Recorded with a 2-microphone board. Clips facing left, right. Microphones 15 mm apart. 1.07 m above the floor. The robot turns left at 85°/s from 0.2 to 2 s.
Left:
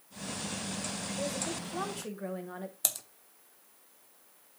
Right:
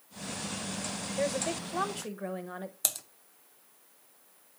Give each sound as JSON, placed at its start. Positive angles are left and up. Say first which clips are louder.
{"t": 1.2, "sound": "a woman speaking", "louder": "right 6 dB", "azimuth_deg": -90, "distance_m": 1.0}
{"t": 2.8, "sound": "typing on a keyboard", "louder": "right 1 dB", "side_deg": -5, "distance_m": 0.6}